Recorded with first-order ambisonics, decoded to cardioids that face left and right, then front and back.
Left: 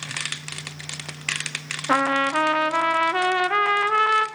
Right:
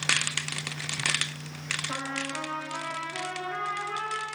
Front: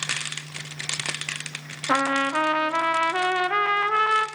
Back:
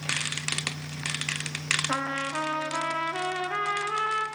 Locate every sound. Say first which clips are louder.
1.9 s a trumpet: left 12 dB, front 7 dB; 60° left, 0.8 m